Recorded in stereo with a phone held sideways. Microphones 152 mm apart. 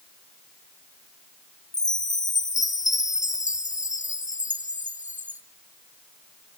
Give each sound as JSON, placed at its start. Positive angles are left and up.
{"t": 1.7, "sound": "a chime", "side_deg": 55, "distance_m": 0.5}